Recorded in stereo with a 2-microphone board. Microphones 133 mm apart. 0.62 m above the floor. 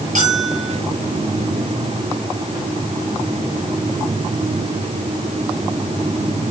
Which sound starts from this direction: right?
A bell, at 0.1 s.